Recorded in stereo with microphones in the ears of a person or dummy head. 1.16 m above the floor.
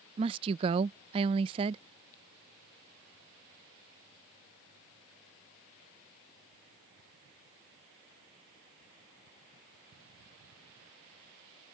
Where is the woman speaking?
30° right (ahead or behind).